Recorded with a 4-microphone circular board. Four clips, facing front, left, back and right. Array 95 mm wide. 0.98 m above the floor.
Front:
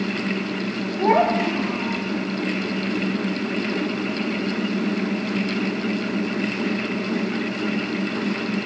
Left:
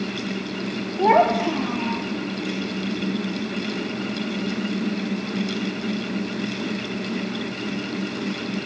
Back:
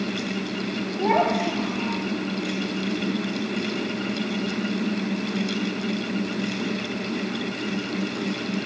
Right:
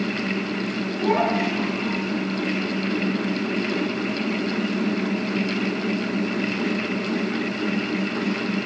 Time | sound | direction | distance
1.0 | a child speaking | 75° left | 3 m